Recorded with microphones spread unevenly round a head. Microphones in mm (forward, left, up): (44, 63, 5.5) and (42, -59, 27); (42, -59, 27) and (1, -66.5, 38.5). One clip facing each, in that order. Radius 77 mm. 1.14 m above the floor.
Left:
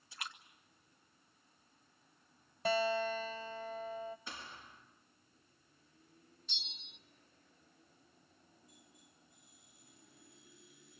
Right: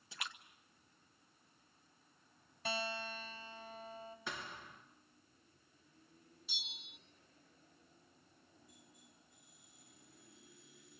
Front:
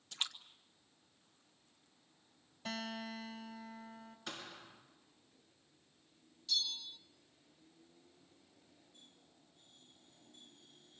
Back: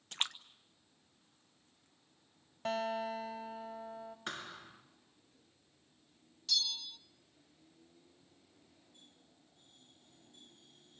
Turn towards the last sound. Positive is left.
turn(degrees=180)